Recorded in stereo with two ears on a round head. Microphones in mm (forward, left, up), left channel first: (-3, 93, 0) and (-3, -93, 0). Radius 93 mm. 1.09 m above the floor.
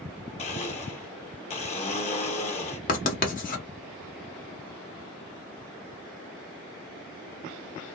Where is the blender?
30° left (ahead or behind), 0.6 m.